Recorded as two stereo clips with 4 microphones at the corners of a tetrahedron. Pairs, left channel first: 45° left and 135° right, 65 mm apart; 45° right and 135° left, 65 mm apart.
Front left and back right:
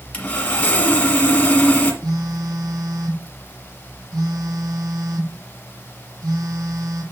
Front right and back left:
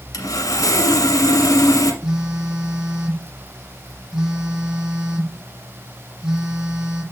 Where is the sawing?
25° right, 1.5 m.